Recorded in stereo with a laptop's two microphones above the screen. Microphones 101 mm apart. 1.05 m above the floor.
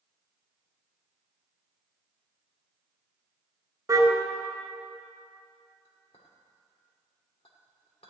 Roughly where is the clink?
Left.